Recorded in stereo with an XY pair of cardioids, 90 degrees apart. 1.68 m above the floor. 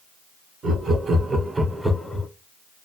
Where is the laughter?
65° right, 1.2 m; by 2.3 s 35° left, 0.6 m.